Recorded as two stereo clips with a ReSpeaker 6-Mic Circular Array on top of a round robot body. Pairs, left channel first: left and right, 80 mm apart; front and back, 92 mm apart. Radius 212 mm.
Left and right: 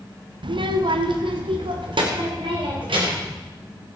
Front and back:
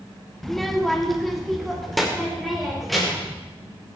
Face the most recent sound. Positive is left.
turn(degrees=-90)